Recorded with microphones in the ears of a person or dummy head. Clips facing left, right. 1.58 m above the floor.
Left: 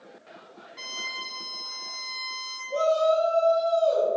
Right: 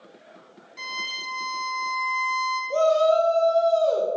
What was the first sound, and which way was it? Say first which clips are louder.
A violin: right 4 dB; 15° right (ahead or behind).